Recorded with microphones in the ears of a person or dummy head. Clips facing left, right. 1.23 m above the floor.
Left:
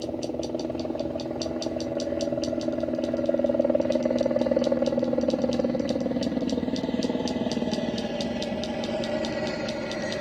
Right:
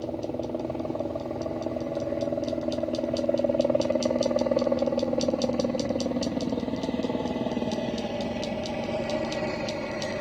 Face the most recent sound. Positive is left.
turn(degrees=10)  # may be behind; listen again after turning